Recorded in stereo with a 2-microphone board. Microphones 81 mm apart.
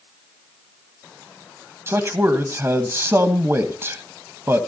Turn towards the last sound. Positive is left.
turn(degrees=-30)  # may be behind; listen again after turning